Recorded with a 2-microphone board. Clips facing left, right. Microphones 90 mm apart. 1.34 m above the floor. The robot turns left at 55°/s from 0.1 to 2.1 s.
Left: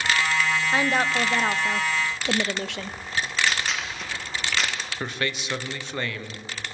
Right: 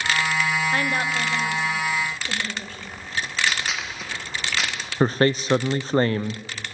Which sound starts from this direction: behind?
A woman speaking, at 0.7 s.